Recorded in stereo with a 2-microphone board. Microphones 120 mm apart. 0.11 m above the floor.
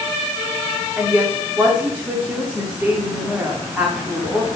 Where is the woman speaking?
10° right (ahead or behind), 8.5 m.